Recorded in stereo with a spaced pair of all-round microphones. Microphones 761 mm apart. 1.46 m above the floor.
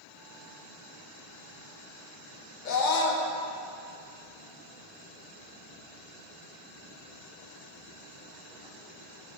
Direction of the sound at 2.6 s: 75° left (ahead or behind).